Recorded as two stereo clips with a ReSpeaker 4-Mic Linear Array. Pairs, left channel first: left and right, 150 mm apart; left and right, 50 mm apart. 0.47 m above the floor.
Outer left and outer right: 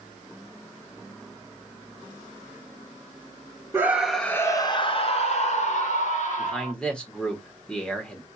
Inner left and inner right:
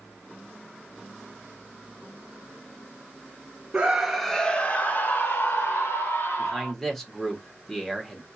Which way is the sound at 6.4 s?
5° left (ahead or behind).